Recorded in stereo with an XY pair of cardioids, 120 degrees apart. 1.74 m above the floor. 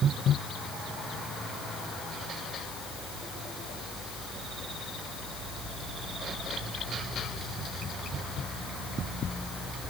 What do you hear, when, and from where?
Only background noise.